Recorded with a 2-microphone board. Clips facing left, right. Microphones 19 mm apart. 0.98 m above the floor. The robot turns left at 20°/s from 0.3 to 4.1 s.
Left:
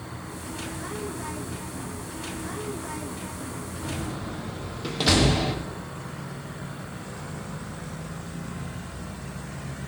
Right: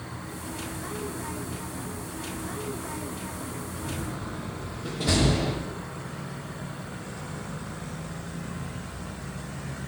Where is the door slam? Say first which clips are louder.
Left 3 dB; 80° left, 0.9 m.